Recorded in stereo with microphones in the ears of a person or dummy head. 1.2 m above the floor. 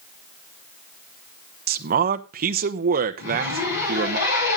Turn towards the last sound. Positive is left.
turn(degrees=65)  # may be behind; listen again after turning